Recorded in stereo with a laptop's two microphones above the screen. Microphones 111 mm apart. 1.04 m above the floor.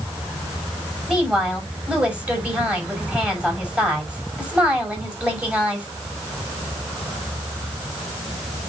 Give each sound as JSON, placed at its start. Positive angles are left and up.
{"t": 1.1, "sound": "a woman speaking", "side_deg": -10, "distance_m": 6.0}